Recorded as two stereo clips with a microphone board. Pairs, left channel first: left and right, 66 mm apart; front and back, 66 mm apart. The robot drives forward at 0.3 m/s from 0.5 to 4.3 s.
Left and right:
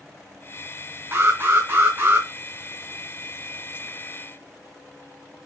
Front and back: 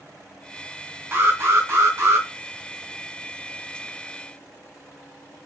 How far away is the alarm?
About 3 m.